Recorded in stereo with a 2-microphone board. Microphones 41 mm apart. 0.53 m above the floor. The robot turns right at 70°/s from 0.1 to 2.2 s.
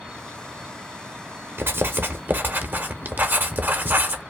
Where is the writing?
105° right, 0.7 m; by 4.2 s 60° right, 0.7 m.